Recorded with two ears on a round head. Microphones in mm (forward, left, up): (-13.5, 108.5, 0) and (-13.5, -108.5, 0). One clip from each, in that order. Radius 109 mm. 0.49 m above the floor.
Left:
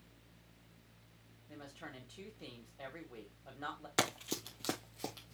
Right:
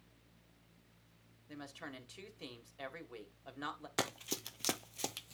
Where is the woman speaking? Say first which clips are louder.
Right 2 dB; 65° right (ahead or behind), 2.5 m.